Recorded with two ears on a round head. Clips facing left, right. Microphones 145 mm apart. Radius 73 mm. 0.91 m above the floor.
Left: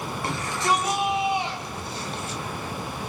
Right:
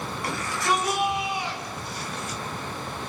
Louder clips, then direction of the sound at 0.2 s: Left 1 dB; 25° left (ahead or behind).